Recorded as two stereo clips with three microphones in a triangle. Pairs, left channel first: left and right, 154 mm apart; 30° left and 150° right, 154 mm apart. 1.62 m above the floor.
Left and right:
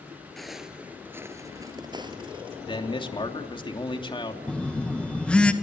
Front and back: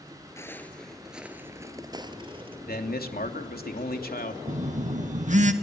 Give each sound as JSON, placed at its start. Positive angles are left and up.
{"t": 0.4, "sound": "footsteps", "azimuth_deg": 5, "distance_m": 1.6}
{"t": 2.7, "sound": "a man speaking", "azimuth_deg": 35, "distance_m": 3.0}
{"t": 4.5, "sound": "a phone buzzing", "azimuth_deg": 175, "distance_m": 1.8}